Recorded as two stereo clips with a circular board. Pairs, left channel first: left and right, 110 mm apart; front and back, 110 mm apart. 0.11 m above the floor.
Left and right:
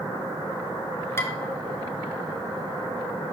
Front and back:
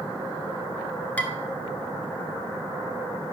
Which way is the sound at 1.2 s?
60° left.